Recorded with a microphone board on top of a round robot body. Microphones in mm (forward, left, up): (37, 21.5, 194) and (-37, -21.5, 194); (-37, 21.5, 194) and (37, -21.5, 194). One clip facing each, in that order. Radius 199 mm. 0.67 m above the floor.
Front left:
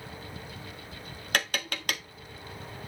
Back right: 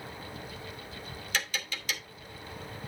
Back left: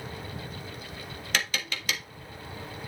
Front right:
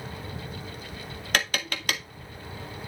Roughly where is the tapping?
Ahead.